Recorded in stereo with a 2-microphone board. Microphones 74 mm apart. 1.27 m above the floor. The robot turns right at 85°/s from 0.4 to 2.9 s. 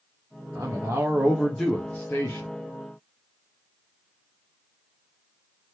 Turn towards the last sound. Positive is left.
turn(degrees=120)